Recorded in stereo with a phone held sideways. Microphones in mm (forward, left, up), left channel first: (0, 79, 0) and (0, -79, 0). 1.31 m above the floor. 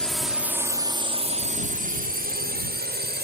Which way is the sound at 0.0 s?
5° left (ahead or behind).